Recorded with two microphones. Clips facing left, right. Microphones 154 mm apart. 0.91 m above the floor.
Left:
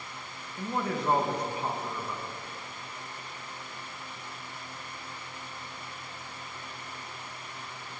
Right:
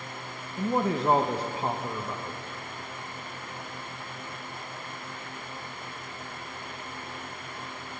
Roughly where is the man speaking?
Right.